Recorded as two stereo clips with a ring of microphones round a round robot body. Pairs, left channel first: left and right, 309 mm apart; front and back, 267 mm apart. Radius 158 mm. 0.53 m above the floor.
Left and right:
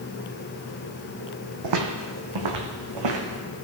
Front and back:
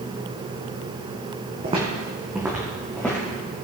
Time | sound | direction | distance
1.6 | footsteps | 110° right | 1.5 m